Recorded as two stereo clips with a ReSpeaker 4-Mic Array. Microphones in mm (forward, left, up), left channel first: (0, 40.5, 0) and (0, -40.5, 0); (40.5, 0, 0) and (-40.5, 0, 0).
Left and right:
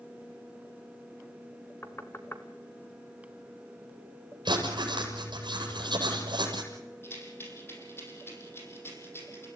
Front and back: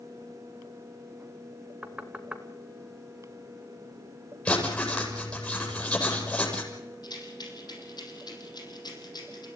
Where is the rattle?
30° left, 5.5 m.